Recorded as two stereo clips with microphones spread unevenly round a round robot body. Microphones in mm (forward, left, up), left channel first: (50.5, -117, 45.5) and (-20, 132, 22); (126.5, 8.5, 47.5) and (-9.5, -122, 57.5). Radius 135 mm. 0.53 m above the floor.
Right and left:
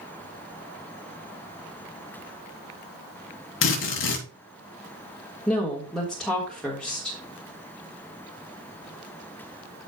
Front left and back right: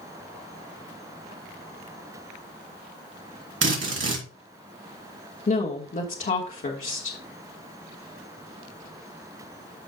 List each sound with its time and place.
3.6 s a drill: 120° right, 3 m
5.5 s a woman speaking: 15° left, 1.5 m